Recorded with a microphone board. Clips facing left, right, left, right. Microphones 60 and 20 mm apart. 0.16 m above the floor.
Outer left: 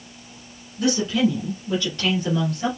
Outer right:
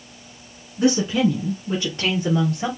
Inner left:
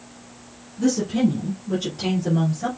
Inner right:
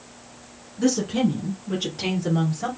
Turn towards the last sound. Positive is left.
turn(degrees=-20)  # may be behind; listen again after turning